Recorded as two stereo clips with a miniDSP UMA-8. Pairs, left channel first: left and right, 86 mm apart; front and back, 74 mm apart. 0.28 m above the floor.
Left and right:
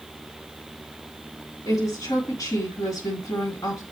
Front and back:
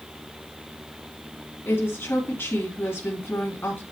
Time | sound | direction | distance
1.6 | a woman speaking | 50° left | 3 m